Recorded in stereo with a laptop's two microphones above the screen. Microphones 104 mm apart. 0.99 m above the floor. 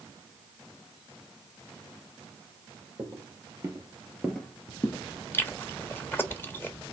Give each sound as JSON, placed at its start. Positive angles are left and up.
{"t": 3.0, "sound": "footsteps", "side_deg": -35, "distance_m": 1.5}
{"t": 5.3, "sound": "chewing", "side_deg": 20, "distance_m": 1.3}